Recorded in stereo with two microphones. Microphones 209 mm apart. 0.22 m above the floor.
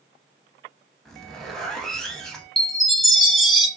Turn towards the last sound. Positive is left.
turn(degrees=0)  # may be behind; listen again after turning